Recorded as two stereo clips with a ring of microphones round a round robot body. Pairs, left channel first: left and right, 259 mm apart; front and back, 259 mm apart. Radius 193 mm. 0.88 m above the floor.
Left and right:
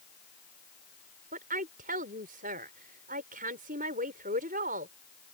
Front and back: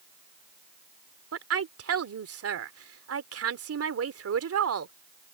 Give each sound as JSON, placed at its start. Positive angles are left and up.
{"t": 1.3, "sound": "a woman speaking", "azimuth_deg": -155}